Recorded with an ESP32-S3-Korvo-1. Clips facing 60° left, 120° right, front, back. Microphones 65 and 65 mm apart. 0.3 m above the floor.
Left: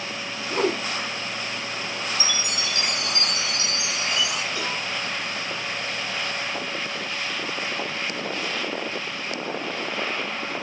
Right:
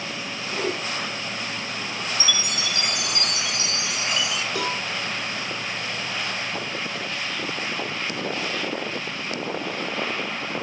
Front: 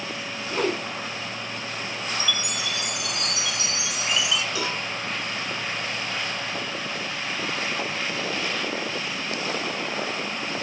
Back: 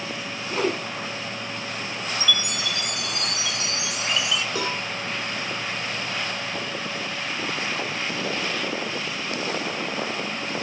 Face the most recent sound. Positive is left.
turn(degrees=-130)